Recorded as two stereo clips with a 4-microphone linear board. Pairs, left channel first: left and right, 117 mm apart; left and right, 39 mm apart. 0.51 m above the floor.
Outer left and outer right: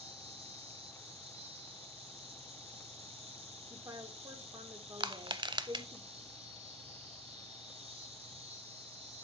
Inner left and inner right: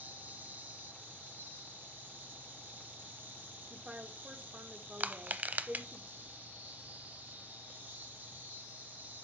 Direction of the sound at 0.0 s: 55° right (ahead or behind).